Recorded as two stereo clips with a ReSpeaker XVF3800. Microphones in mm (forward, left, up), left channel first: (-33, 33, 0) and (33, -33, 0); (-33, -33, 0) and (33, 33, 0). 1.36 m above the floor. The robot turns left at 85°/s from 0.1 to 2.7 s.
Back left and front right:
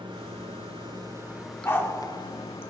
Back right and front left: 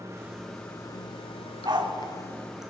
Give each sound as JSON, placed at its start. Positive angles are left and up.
{"t": 0.0, "sound": "running water", "azimuth_deg": -15, "distance_m": 1.1}
{"t": 1.6, "sound": "a dog barking", "azimuth_deg": 75, "distance_m": 1.5}